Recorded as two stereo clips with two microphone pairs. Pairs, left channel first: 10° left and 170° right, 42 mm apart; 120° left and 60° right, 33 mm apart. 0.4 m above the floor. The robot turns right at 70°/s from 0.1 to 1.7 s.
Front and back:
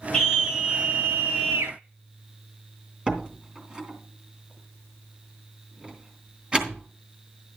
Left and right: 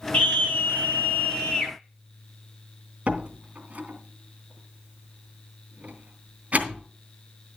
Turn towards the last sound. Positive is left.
turn(degrees=-100)